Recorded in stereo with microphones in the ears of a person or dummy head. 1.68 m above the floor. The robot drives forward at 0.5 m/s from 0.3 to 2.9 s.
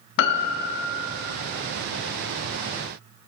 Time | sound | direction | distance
0.2 | a piano | 60° left (ahead or behind) | 0.6 m